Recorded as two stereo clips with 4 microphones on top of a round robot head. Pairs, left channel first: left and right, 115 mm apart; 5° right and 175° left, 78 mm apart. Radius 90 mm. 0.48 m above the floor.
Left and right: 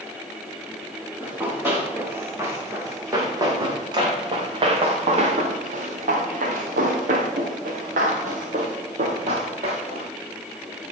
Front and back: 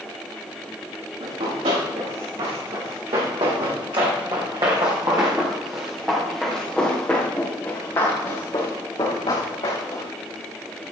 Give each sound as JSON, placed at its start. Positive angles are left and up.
{"t": 1.2, "sound": "running footsteps", "azimuth_deg": -160, "distance_m": 6.5}